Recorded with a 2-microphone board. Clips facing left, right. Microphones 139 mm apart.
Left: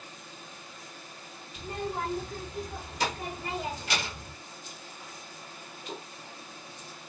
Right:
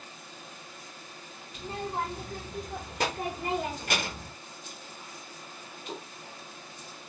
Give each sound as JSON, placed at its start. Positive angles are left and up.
{"t": 1.6, "sound": "a child speaking", "side_deg": -65, "distance_m": 2.0}